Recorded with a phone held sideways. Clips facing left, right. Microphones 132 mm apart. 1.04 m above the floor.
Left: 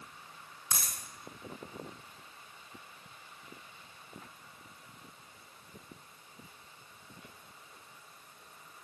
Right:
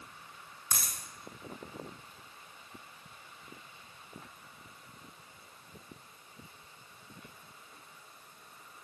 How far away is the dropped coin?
About 1.9 m.